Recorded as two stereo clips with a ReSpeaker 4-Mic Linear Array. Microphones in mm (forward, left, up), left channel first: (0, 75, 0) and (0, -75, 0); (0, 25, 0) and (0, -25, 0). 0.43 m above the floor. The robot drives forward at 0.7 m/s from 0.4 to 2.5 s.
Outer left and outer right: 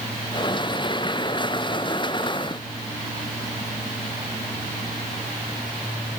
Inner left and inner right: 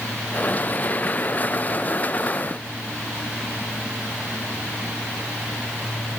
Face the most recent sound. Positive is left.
No sound to turn to.